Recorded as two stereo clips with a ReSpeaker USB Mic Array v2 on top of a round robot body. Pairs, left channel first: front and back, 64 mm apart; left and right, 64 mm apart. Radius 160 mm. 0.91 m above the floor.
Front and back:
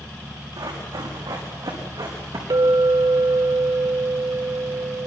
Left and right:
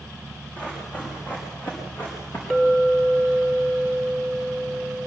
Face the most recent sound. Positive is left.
turn(degrees=170)